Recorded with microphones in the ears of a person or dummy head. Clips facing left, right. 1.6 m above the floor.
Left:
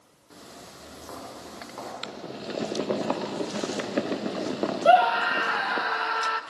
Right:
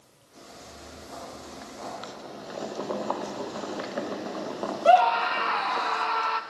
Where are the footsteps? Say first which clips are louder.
Left 1 dB; 75° left (ahead or behind), 9 m; by 1.9 s 70° left (ahead or behind), 8.5 m.